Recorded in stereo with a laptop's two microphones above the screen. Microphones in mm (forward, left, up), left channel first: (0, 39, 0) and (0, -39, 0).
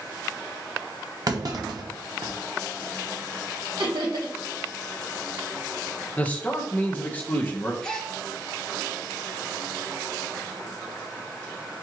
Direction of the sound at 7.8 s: 10° left (ahead or behind).